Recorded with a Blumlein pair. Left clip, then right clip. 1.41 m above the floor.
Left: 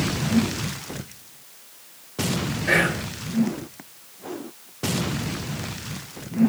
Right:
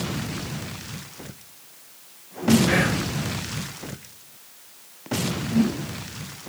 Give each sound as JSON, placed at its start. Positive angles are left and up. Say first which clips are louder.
{"t": 2.7, "sound": "whispering", "louder": "left 2 dB", "azimuth_deg": 70, "distance_m": 0.7}